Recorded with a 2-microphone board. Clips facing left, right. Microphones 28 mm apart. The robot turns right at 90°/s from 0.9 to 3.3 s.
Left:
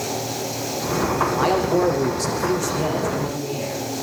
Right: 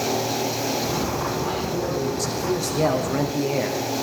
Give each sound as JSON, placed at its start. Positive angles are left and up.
{"t": 1.3, "sound": "a man speaking", "azimuth_deg": 90, "distance_m": 8.0}